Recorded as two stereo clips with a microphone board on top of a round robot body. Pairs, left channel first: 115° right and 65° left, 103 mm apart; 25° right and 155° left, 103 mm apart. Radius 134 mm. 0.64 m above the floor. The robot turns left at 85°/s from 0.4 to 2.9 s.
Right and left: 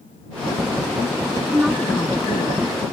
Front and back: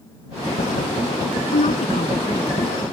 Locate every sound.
1.4 s a woman speaking: 10° left; by 2.7 s 110° right